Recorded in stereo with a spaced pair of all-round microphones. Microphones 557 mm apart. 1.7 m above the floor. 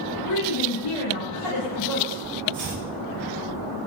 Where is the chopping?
55° left (ahead or behind), 6 m.